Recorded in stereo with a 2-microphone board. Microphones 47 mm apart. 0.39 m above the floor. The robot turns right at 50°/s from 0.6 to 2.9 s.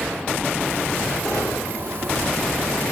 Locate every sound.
1.2 s a gunshot: 20° left (ahead or behind), 7.5 m; by 1.8 s 45° left (ahead or behind), 7.5 m